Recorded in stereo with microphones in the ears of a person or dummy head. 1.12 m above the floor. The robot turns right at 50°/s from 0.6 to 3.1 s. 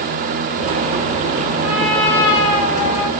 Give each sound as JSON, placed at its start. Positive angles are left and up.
{"t": 1.6, "sound": "a trumpet", "azimuth_deg": -5, "distance_m": 1.9}